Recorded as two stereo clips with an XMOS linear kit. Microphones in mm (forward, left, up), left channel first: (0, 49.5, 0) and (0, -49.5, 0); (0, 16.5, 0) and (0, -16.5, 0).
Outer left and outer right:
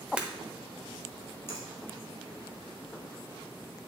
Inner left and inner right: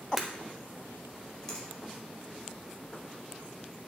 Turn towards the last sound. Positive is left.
turn(degrees=25)  # may be behind; listen again after turning